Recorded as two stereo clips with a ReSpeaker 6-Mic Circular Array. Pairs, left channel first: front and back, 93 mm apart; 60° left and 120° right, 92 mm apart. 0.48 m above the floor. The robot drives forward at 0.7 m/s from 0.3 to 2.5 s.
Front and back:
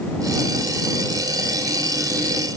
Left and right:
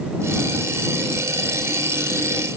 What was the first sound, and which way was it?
Only background noise.